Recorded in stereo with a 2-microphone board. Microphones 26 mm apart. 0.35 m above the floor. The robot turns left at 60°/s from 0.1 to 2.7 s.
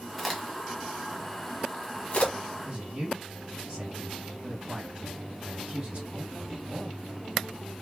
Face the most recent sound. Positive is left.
turn(degrees=-55)  # may be behind; listen again after turning